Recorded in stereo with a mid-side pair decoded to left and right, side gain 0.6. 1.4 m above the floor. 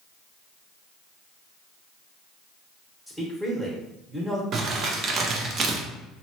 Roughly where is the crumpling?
Ahead right.